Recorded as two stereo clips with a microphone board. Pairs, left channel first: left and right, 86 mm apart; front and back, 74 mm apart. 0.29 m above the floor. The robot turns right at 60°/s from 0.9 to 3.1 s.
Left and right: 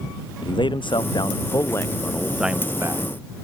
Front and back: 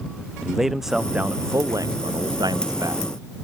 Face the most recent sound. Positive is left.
turn(degrees=-135)